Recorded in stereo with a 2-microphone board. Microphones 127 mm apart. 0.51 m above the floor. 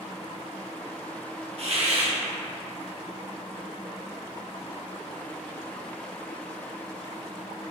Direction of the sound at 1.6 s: 50° right (ahead or behind).